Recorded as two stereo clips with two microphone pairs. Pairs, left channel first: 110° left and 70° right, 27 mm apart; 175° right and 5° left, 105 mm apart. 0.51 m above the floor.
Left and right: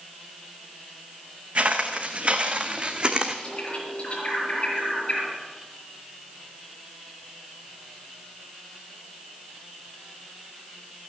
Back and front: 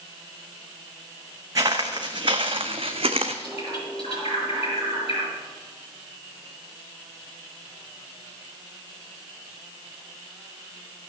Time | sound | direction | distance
1.6 | footsteps | 50° right | 1.8 m
3.4 | a bird | 155° left | 6 m